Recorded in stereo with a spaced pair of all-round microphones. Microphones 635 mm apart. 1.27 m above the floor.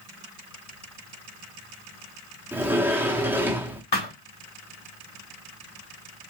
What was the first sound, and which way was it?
A sliding door, 5° right (ahead or behind).